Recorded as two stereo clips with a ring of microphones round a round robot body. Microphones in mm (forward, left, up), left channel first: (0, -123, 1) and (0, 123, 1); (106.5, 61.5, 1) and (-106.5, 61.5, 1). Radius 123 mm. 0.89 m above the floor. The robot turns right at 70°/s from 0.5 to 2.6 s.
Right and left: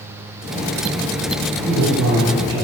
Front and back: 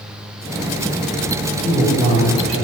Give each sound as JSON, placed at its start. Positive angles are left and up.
{"t": 1.6, "sound": "a man speaking", "azimuth_deg": 100, "distance_m": 2.5}